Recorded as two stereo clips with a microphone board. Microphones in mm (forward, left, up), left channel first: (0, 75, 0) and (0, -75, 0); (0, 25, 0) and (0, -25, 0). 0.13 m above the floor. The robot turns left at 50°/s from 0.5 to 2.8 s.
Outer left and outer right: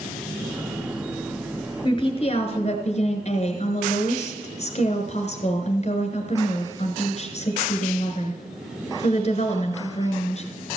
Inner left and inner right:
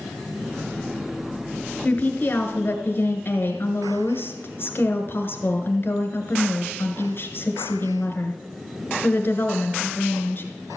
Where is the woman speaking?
135° left, 1.6 m; by 10.4 s 90° left, 1.6 m.